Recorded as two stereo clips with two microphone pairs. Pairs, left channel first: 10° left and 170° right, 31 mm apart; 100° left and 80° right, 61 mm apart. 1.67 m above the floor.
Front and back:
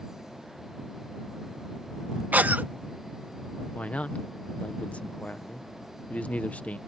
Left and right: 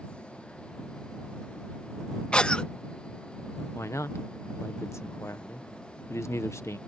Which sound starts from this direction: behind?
A cough, at 2.3 s.